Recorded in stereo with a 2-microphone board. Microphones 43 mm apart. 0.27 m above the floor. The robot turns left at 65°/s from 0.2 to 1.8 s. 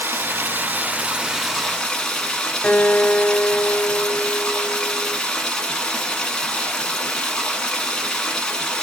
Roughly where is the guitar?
Left.